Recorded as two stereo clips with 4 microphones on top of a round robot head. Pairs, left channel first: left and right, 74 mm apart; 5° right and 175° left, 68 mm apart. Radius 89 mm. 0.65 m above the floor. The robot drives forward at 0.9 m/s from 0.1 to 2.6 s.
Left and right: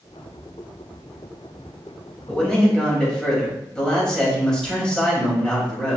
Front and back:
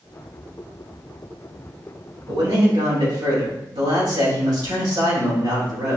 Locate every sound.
2.3 s a man speaking: 170° left, 3.5 m